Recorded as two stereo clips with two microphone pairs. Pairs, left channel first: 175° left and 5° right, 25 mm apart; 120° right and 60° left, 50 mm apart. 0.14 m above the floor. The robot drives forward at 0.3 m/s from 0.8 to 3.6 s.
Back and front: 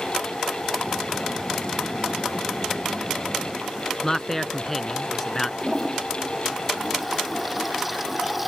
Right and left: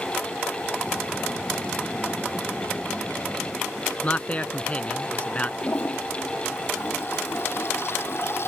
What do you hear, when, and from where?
4.0 s a man speaking: 115° right
5.6 s a toilet flushing: 85° right